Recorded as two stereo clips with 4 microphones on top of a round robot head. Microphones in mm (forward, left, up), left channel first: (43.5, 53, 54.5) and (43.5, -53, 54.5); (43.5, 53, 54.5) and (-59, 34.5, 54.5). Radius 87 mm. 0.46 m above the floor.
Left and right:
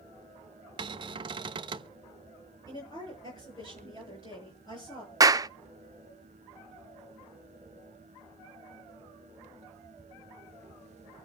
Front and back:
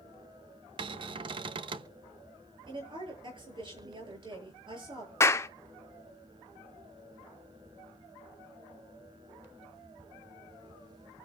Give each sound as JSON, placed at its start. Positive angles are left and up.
{"t": 0.8, "sound": "a cupboard door", "azimuth_deg": -135, "distance_m": 0.8}
{"t": 2.7, "sound": "a woman speaking", "azimuth_deg": 150, "distance_m": 8.5}
{"t": 5.2, "sound": "a clap", "azimuth_deg": -45, "distance_m": 0.7}